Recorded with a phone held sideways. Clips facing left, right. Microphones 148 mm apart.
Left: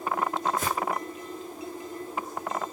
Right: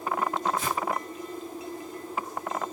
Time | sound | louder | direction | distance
0.6 | footsteps | even | 70° left (ahead or behind) | 4 m